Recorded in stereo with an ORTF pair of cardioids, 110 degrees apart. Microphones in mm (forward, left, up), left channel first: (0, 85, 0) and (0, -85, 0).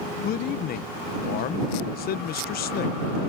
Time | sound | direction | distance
0.2 | a man speaking | 60° left | ?